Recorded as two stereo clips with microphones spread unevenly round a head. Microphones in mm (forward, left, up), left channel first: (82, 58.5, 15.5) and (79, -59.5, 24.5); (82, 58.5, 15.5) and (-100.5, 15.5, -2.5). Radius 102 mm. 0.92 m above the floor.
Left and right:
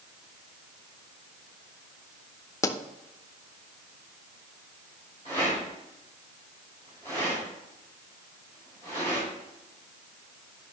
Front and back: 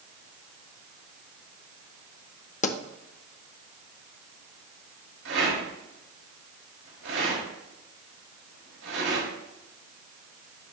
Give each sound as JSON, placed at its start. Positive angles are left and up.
{"t": 2.6, "sound": "a pop", "azimuth_deg": 50, "distance_m": 0.7}
{"t": 5.2, "sound": "a rattle", "azimuth_deg": -155, "distance_m": 4.0}